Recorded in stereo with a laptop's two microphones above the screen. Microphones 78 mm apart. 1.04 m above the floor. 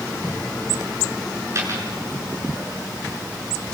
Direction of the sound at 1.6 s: 35° right (ahead or behind).